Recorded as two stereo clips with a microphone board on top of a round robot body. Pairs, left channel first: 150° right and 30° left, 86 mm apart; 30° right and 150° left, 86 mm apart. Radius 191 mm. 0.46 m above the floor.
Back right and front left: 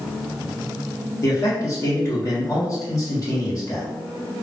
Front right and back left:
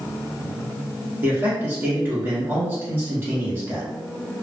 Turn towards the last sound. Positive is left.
turn(degrees=-160)